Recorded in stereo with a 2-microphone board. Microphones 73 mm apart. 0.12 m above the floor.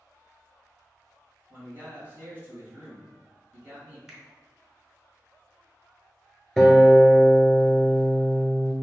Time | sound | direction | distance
1.5 | a man speaking | 25° right (ahead or behind) | 1.4 m
4.1 | a finger snap | 5° right (ahead or behind) | 0.9 m
6.6 | a guitar | 10° left (ahead or behind) | 0.6 m